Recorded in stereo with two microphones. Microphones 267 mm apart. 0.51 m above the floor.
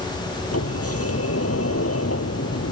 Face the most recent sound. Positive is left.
turn(degrees=60)  # may be behind; listen again after turning